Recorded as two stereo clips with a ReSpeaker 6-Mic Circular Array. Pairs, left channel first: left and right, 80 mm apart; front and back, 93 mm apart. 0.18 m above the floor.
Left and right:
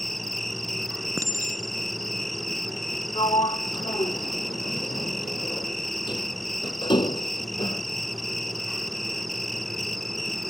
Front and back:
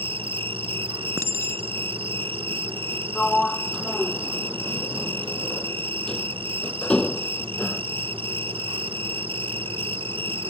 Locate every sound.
0.0 s an insect: straight behind
1.2 s a clink: 130° right
3.1 s a sliding door: 80° left